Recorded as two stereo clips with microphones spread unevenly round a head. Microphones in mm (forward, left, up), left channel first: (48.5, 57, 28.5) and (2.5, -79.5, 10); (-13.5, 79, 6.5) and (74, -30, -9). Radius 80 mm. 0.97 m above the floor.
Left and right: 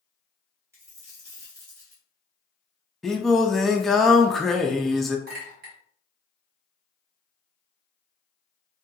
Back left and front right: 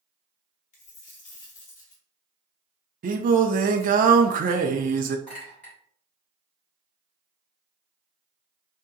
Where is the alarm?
No alarm in this recording.